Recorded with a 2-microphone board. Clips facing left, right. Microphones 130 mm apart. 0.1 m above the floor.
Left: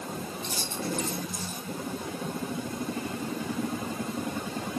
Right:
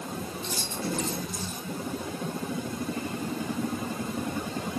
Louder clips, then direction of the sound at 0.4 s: Right 1 dB; 50° left (ahead or behind).